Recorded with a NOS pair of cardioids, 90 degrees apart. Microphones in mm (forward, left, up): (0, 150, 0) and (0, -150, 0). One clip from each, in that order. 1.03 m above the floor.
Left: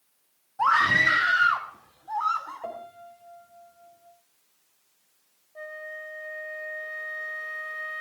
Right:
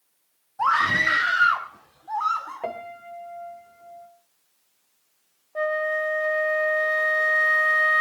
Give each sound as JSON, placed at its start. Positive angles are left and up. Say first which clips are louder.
{"t": 0.6, "sound": "a scream", "louder": "even", "azimuth_deg": 0, "distance_m": 1.5}
{"t": 2.6, "sound": "a piano", "louder": "right 5 dB", "azimuth_deg": -60, "distance_m": 2.5}
{"t": 5.5, "sound": "a flute", "louder": "right 14 dB", "azimuth_deg": -65, "distance_m": 0.6}